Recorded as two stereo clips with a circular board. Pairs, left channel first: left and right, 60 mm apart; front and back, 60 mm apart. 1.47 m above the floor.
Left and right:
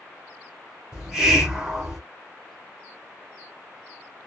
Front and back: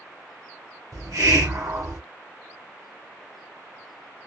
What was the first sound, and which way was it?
A hiss, 170° right.